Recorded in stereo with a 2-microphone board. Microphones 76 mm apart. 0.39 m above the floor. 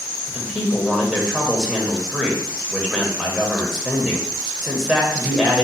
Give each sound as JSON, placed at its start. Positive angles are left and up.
{"t": 0.3, "sound": "a man speaking", "side_deg": -5, "distance_m": 1.2}